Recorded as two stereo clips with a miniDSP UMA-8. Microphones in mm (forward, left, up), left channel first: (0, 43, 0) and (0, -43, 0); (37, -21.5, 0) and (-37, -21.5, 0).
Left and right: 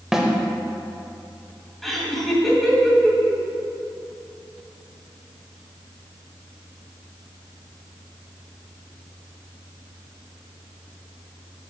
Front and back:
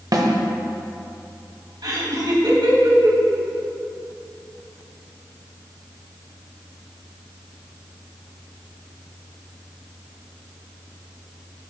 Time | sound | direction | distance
0.1 | a snare drum | 175° right | 1.1 m
1.8 | laughter | straight behind | 2.5 m